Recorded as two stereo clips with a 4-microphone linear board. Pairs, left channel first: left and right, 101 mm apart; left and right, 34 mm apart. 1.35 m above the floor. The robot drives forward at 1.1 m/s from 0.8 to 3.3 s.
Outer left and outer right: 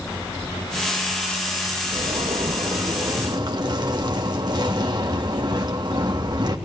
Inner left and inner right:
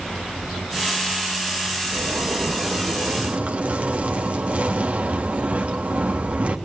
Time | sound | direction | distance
1.9 | a zipper | 75° right (ahead or behind) | 2.5 m